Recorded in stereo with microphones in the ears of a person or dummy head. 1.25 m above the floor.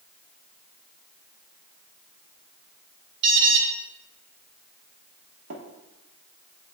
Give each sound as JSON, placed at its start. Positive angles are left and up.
{"t": 3.2, "sound": "an alarm", "side_deg": -65, "distance_m": 1.4}
{"t": 5.5, "sound": "tapping", "side_deg": -70, "distance_m": 1.2}